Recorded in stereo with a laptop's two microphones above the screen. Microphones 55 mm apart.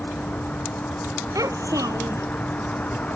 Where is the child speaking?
90° right.